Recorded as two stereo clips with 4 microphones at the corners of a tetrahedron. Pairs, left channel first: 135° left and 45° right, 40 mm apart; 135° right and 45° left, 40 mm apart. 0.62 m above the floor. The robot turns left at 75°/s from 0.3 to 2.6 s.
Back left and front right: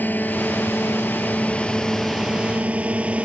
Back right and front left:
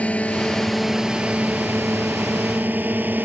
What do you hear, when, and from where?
0.0 s a drone: 170° left; by 3.2 s 10° left